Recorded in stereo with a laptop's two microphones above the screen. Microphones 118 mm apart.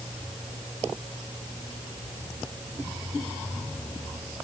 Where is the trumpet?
No trumpet in this recording.